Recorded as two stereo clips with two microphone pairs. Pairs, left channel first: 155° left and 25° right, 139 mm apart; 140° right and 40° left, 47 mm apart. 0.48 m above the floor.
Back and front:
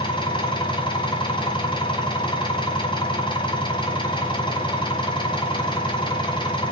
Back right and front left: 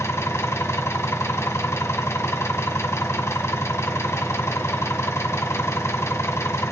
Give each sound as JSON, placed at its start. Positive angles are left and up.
{"t": 0.0, "sound": "an engine running", "azimuth_deg": -150, "distance_m": 1.6}